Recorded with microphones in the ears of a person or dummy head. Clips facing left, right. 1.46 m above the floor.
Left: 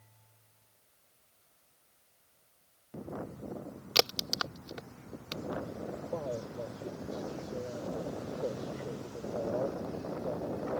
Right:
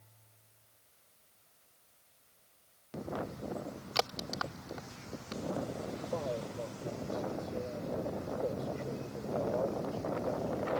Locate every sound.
4.0 s a crack: 40° left (ahead or behind)
6.1 s a man speaking: 5° left (ahead or behind)